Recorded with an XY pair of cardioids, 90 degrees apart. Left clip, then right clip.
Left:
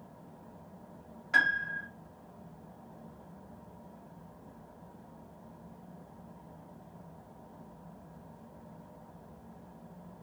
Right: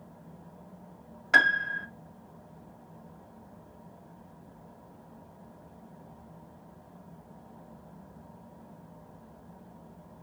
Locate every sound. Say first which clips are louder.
1.3 s a piano: right 5 dB; 65° right, 0.5 m